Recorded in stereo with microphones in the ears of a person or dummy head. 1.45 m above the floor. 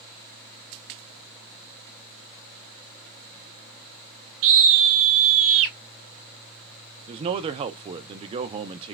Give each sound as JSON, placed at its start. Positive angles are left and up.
{"t": 4.4, "sound": "a scream", "side_deg": -80, "distance_m": 0.9}
{"t": 7.1, "sound": "a man speaking", "side_deg": -35, "distance_m": 0.5}